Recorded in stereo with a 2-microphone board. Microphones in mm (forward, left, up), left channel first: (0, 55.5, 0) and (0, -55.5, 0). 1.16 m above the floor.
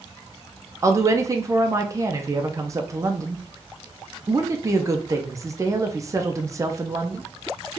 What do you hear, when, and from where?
0.8 s a woman speaking: 30° right (ahead or behind), 0.7 m